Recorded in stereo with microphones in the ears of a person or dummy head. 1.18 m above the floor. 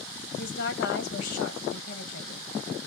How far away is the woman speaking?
About 1.4 m.